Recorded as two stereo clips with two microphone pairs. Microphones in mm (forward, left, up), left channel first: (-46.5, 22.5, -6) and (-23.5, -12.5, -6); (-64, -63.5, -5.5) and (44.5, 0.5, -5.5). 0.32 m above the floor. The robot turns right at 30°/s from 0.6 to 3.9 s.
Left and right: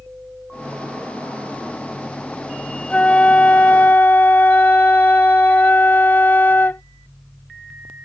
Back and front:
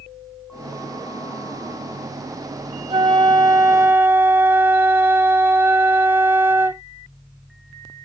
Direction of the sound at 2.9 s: 70° left.